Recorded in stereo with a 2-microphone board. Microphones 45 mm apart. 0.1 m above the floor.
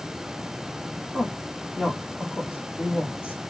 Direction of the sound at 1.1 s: 55° left (ahead or behind).